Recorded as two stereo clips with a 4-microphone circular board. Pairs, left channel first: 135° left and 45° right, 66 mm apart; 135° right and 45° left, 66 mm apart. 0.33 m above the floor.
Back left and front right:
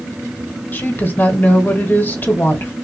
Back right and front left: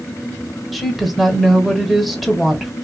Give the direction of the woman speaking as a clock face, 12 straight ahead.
7 o'clock.